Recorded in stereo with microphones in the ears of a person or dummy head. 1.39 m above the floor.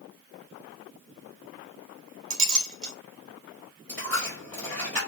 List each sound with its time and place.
2.3 s a clink: 75° right (ahead or behind), 1.0 m
3.9 s a dropped coin: 5° left (ahead or behind), 1.4 m